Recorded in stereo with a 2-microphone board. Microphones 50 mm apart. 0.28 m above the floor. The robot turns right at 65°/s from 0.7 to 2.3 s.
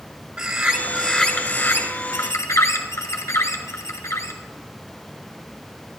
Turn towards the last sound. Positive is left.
turn(degrees=90)